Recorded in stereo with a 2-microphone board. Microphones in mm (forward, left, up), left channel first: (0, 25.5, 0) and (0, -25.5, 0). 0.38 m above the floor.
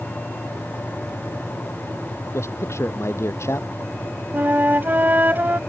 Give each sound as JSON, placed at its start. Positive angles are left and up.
{"t": 2.3, "sound": "a man speaking", "side_deg": 65}
{"t": 4.3, "sound": "a flute", "side_deg": -40}